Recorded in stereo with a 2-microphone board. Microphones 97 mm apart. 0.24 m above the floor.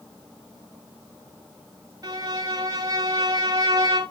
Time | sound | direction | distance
2.0 | a violin | 40° right (ahead or behind) | 1.1 m